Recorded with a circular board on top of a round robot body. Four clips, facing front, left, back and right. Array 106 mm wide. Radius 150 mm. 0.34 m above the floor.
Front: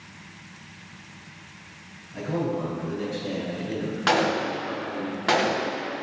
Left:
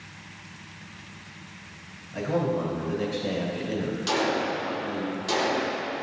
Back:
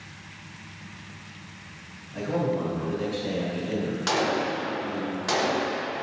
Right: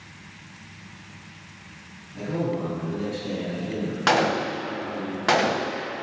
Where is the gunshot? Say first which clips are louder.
Right 5 dB, front 4 dB; 65° right, 0.8 m.